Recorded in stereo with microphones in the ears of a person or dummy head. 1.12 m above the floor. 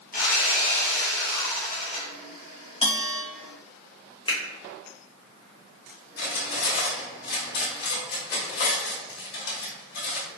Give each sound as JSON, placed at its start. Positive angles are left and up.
{"t": 0.1, "sound": "sawing", "side_deg": 45, "distance_m": 0.9}
{"t": 2.8, "sound": "a bell", "side_deg": 25, "distance_m": 1.1}
{"t": 4.3, "sound": "a finger snap", "side_deg": 20, "distance_m": 0.9}
{"t": 6.2, "sound": "cutlery clinking", "side_deg": 65, "distance_m": 1.5}